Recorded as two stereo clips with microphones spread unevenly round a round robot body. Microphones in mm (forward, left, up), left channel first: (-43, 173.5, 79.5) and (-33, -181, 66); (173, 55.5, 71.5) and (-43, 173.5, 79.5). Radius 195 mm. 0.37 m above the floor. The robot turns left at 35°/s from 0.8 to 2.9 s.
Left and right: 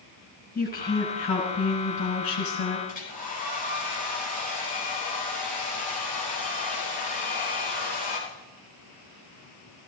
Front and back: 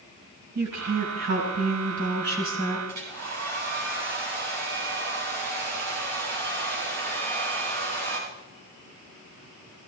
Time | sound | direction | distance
0.6 | a woman speaking | 170° left | 4.5 m
2.9 | a hair dryer | 160° left | 6 m